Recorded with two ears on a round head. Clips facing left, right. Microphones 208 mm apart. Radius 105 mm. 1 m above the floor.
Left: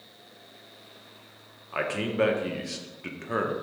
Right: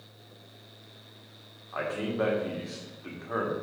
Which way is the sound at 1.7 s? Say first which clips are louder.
Left 3 dB; 35° left (ahead or behind).